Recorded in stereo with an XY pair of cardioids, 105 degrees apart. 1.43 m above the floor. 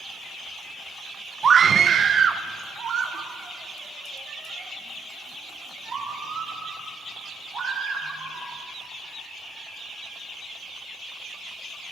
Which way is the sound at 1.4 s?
40° right.